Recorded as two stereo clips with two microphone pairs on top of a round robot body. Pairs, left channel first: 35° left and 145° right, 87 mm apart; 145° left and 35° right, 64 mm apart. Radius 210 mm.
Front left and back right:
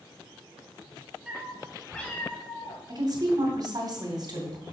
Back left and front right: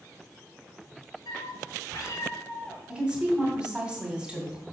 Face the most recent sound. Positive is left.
turn(degrees=-115)